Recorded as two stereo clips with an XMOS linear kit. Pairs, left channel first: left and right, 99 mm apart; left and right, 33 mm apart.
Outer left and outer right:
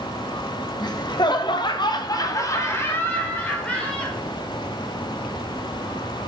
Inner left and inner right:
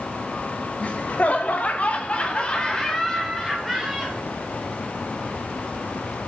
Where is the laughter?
40° left (ahead or behind), 1.1 m; by 4.2 s 10° left (ahead or behind), 1.8 m.